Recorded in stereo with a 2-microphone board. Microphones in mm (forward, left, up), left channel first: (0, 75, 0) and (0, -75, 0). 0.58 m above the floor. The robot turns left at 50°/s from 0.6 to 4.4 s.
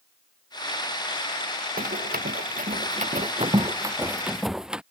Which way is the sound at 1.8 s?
75° right (ahead or behind).